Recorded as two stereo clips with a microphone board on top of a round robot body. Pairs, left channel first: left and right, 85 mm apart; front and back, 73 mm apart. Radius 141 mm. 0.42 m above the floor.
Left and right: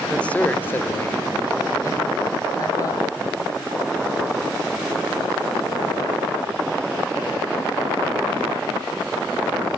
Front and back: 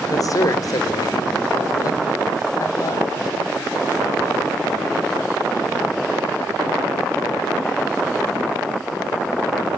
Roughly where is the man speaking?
Ahead.